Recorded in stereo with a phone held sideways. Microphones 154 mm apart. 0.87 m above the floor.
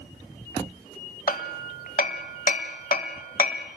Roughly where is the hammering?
Left.